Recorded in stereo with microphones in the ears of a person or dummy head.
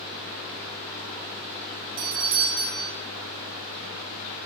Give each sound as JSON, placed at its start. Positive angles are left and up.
{"t": 2.0, "sound": "a doorbell", "side_deg": -45, "distance_m": 3.0}